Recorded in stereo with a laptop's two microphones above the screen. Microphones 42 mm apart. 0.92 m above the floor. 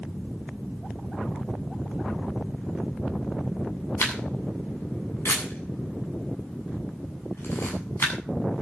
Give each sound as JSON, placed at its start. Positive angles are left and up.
{"t": 4.0, "sound": "a camera shutter", "side_deg": 85, "distance_m": 7.5}